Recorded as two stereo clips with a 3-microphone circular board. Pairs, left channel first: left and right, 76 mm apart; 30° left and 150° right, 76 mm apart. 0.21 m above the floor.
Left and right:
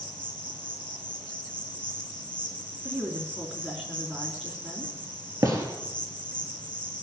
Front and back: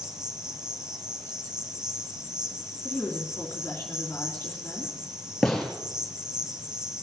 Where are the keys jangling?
No keys jangling in this recording.